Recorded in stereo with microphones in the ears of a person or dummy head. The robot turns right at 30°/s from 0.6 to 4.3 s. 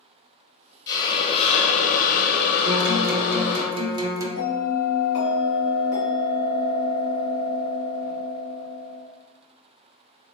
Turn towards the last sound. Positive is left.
turn(degrees=75)  # may be behind; listen again after turning